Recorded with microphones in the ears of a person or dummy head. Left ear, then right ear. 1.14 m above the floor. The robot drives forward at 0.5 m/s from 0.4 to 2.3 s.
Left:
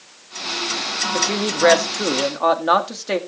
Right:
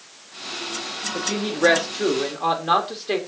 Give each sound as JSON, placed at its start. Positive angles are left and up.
{"t": 1.1, "sound": "a woman speaking", "side_deg": 90, "distance_m": 1.6}